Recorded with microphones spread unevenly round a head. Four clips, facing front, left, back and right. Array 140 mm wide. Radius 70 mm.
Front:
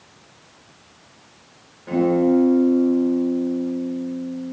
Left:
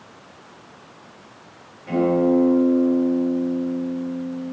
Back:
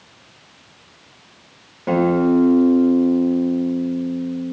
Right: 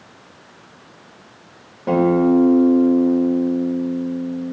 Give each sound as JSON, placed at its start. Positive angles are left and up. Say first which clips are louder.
{"t": 1.9, "sound": "a guitar", "louder": "right 3 dB, back 1 dB", "azimuth_deg": -135, "distance_m": 3.5}